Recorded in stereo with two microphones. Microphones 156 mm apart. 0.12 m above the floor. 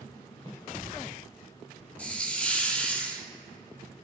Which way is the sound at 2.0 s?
10° left (ahead or behind).